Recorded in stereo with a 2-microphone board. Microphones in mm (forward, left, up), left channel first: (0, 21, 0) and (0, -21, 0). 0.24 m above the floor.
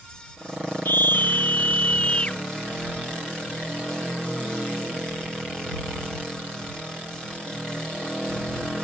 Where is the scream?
60° left (ahead or behind); by 2.4 s 25° left (ahead or behind).